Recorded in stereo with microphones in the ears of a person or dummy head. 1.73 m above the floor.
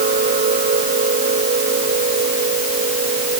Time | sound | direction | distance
0.0 | a machine running | 45° right (ahead or behind) | ?